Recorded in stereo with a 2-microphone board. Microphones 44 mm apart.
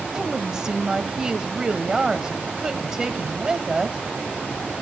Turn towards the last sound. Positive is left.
turn(degrees=-15)  # may be behind; listen again after turning